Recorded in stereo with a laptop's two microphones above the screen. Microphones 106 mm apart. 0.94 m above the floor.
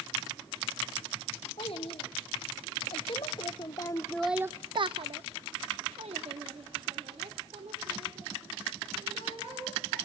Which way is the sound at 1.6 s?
65° left (ahead or behind).